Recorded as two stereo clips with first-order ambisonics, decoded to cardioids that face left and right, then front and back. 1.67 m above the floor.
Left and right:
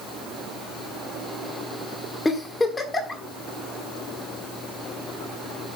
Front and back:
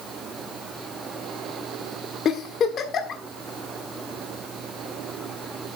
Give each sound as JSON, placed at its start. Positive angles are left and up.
{"t": 2.2, "sound": "a giggle", "azimuth_deg": 20, "distance_m": 1.4}